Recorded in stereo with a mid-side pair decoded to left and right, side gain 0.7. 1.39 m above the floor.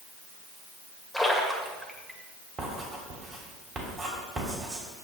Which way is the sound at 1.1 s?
Straight ahead.